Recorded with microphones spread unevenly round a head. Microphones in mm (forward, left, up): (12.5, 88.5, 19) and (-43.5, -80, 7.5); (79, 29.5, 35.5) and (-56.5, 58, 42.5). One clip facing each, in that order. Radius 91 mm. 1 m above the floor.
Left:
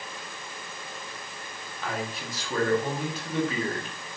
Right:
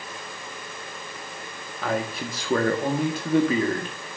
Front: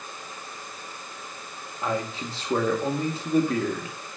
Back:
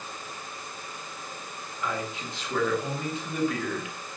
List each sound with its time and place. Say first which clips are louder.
1.8 s a man speaking: right 6 dB, front 4 dB; 70° right, 1.8 m